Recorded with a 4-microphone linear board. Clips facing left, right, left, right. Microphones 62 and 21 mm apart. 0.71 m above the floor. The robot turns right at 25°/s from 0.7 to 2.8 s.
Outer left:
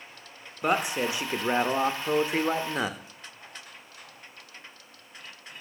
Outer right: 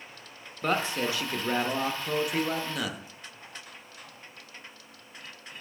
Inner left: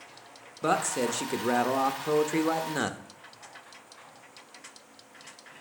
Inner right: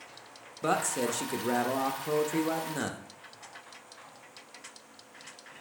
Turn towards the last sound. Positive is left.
turn(degrees=30)  # may be behind; listen again after turning